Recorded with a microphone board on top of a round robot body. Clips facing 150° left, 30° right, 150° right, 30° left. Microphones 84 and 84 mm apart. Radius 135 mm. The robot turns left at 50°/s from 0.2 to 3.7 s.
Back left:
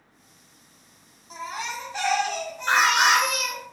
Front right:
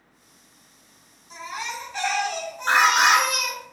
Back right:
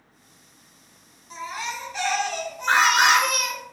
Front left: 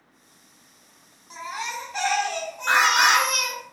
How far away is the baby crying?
About 1.4 m.